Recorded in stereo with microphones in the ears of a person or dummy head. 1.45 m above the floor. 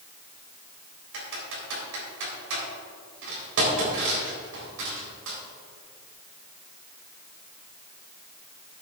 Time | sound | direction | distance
1.1 | typing on a keyboard | 80° right | 3.5 m